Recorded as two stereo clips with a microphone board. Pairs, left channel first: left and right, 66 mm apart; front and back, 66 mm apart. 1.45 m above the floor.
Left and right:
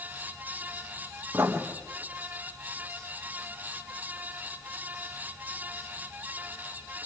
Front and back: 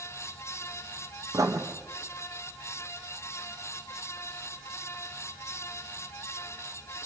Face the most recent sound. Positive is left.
turn(degrees=-145)